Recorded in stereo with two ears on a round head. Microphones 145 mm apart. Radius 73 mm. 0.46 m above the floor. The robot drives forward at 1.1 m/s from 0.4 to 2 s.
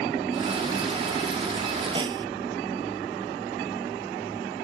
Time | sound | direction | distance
1.9 | a snare drum | 30° right (ahead or behind) | ?